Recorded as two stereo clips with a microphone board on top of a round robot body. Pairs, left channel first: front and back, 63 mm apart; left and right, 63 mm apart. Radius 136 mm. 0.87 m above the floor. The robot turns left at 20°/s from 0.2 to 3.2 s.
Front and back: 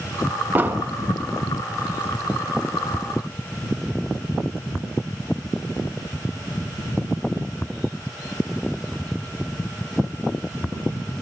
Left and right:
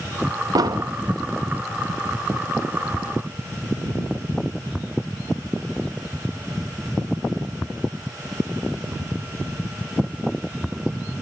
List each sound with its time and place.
0.6 s an explosion: 120° right, 0.5 m; by 0.9 s 125° right, 0.5 m